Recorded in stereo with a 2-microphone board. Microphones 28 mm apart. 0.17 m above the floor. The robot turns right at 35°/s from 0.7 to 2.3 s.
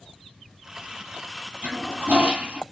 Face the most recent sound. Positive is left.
turn(degrees=-50)  # may be behind; listen again after turning